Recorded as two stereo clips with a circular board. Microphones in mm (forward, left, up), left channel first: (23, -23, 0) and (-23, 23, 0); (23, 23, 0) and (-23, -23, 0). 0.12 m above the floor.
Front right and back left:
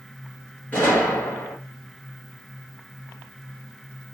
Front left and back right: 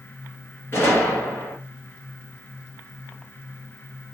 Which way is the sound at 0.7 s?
5° left.